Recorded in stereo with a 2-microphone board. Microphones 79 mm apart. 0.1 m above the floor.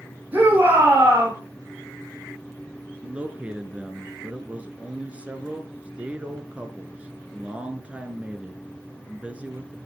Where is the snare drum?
I don't hear a snare drum.